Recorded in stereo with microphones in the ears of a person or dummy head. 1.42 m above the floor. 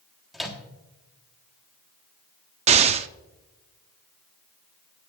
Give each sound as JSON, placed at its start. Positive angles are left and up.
{"t": 0.3, "sound": "a microwave", "side_deg": 5, "distance_m": 1.4}
{"t": 2.7, "sound": "an explosion", "side_deg": -25, "distance_m": 0.5}